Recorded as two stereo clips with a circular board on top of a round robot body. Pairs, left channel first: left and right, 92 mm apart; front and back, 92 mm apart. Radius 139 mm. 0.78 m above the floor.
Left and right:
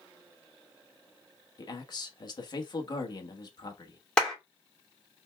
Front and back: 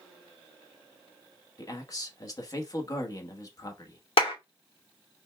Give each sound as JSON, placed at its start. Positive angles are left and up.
{"t": 1.6, "sound": "a man speaking", "azimuth_deg": 50, "distance_m": 1.3}
{"t": 4.2, "sound": "a clap", "azimuth_deg": 10, "distance_m": 2.5}